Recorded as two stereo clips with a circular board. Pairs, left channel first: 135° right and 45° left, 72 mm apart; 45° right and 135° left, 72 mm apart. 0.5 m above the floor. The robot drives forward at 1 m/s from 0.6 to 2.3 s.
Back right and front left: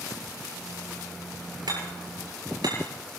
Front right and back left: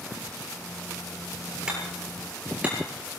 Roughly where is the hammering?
Ahead left.